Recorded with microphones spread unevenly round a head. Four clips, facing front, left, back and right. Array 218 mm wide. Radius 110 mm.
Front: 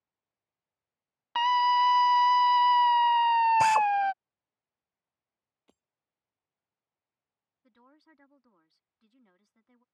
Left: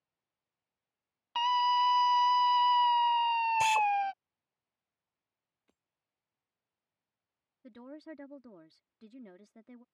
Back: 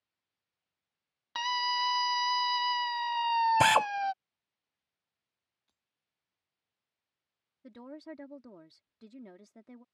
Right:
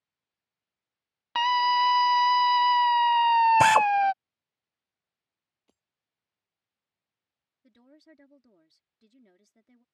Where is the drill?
115° right.